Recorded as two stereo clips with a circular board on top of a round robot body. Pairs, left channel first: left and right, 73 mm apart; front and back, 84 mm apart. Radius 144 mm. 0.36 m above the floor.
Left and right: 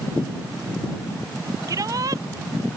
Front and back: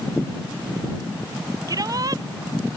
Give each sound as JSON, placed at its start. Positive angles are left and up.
{"t": 1.7, "sound": "a shout", "azimuth_deg": -135}